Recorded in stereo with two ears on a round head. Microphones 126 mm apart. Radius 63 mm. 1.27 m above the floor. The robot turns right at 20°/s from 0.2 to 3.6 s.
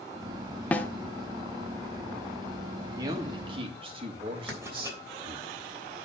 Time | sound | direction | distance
0.7 | a snare drum | 10° left (ahead or behind) | 1.0 m
3.0 | a man speaking | 25° right (ahead or behind) | 2 m
4.5 | writing | 20° right (ahead or behind) | 3 m